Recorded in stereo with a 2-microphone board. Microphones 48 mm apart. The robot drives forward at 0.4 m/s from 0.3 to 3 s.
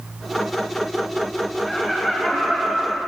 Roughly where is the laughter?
Centre.